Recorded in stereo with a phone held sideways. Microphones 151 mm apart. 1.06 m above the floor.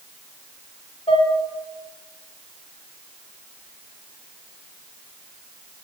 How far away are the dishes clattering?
About 2 m.